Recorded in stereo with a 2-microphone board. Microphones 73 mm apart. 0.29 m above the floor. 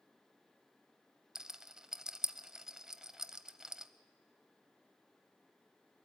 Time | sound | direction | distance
1.4 | a rattle | 10° right (ahead or behind) | 0.7 m